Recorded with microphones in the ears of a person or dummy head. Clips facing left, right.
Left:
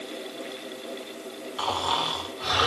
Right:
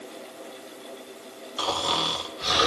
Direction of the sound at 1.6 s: 35° right (ahead or behind).